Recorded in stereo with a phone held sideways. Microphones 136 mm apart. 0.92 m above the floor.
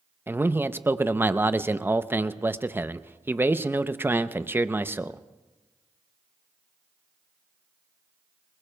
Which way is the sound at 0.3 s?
15° right (ahead or behind).